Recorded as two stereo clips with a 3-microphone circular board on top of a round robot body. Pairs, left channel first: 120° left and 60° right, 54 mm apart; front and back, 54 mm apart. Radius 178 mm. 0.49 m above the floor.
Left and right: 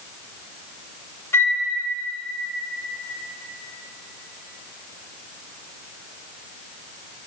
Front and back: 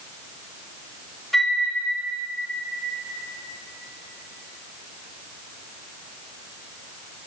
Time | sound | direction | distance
1.3 | a flute | 85° left | 1.2 m